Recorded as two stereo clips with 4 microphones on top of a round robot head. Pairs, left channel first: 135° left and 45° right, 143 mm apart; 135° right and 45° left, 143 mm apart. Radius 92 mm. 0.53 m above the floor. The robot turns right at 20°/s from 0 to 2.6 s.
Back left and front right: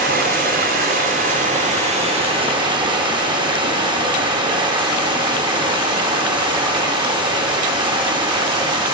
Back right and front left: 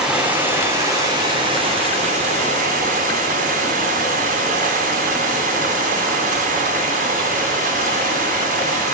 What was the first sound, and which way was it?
Running water, 40° right.